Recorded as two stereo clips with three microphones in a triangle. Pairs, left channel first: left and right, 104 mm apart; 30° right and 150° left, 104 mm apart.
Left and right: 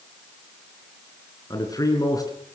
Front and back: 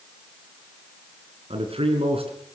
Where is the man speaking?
140° left, 3.5 m.